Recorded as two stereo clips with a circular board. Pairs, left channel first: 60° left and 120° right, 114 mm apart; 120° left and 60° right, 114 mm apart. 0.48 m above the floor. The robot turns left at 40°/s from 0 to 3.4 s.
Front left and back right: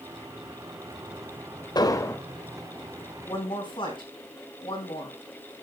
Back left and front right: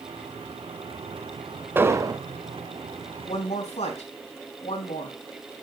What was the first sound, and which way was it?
An explosion, 10° left.